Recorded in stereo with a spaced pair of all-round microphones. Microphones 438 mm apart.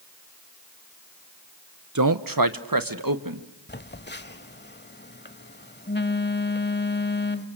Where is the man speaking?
40° right (ahead or behind), 0.9 m; by 3.5 s 45° right (ahead or behind), 2 m.